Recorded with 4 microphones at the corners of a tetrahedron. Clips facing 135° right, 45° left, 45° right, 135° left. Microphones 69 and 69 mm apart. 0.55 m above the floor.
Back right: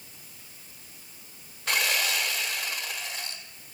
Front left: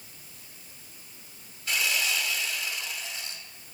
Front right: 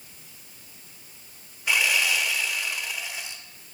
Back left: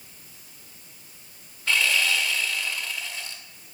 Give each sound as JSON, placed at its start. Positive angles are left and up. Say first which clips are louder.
{"t": 1.7, "sound": "sawing", "louder": "back right 2 dB, even", "azimuth_deg": -120, "distance_m": 1.2}